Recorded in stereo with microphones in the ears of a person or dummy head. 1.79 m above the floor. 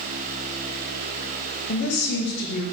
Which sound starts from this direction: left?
A woman speaking, at 1.7 s.